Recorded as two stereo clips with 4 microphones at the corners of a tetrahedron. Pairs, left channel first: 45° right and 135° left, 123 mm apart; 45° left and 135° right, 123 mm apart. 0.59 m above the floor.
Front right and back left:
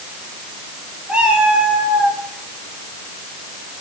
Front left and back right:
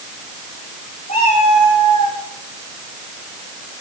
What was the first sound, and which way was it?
A cat meowing, 60° left.